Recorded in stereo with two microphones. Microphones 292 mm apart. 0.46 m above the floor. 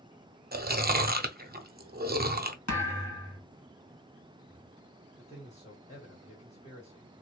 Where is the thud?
80° left, 1.0 m.